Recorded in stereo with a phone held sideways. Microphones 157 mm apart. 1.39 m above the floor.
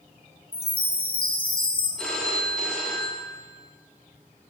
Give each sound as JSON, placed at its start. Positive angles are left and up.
{"t": 0.5, "sound": "a chime", "side_deg": 65, "distance_m": 0.5}
{"t": 2.0, "sound": "a phone ringing", "side_deg": 0, "distance_m": 0.6}